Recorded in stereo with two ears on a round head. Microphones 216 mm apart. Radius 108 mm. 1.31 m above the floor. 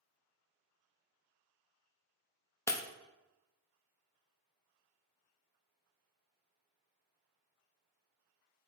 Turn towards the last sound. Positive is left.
turn(degrees=10)  # may be behind; listen again after turning